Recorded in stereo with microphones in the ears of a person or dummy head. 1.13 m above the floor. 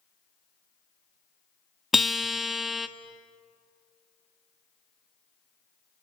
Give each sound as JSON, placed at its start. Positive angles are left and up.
{"t": 1.9, "sound": "a guitar", "side_deg": 0, "distance_m": 0.8}